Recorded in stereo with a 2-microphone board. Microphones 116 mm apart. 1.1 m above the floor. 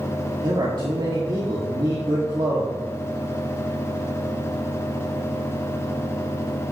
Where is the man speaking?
40° right (ahead or behind), 2 m.